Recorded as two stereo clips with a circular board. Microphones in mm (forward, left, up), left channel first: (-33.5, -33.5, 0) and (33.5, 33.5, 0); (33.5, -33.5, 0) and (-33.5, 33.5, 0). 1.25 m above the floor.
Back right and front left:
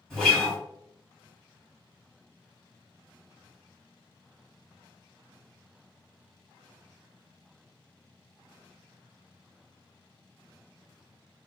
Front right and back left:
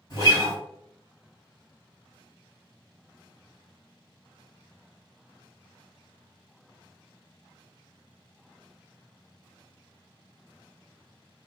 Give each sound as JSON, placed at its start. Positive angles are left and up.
{"t": 0.1, "sound": "a guitar", "azimuth_deg": -55, "distance_m": 1.3}